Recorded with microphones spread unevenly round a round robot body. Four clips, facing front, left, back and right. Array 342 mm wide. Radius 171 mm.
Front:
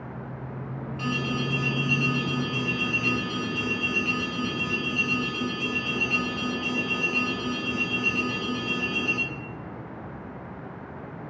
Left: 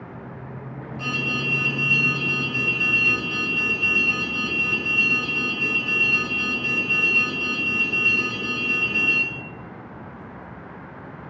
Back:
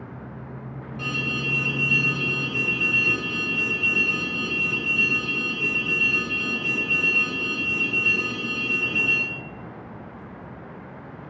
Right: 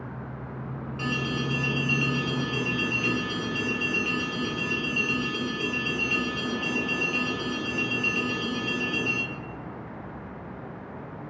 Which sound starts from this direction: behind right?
An alarm, at 1.0 s.